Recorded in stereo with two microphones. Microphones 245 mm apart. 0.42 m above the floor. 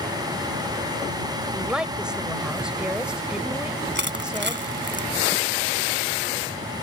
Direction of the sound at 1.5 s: 5° right (ahead or behind).